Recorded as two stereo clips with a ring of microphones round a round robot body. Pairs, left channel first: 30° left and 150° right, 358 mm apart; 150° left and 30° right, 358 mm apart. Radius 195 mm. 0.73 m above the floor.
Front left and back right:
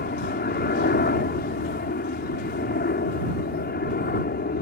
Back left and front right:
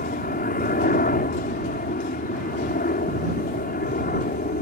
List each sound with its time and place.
0.0 s a helicopter: 90° left